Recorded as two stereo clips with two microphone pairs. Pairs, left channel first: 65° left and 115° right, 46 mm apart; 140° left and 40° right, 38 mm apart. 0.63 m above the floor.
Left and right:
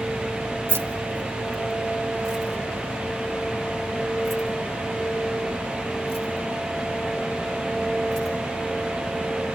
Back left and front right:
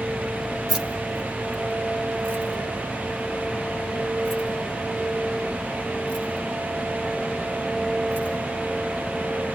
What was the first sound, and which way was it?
Keys jangling, 100° right.